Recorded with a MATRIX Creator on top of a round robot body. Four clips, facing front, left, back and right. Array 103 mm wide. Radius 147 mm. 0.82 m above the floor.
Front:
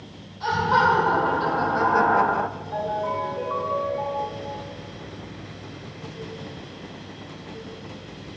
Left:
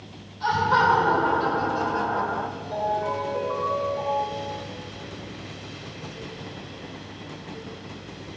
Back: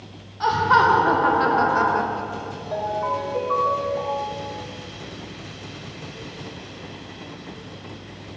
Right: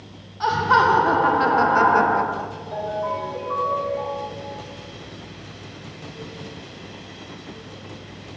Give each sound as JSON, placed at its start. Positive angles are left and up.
{"t": 0.4, "sound": "laughter", "azimuth_deg": -135, "distance_m": 2.5}
{"t": 2.7, "sound": "a ringtone", "azimuth_deg": 180, "distance_m": 3.0}